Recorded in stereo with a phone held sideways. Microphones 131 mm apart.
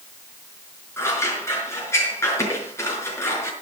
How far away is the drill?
I don't hear a drill.